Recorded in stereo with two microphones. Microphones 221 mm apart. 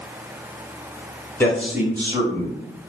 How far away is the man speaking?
About 0.9 m.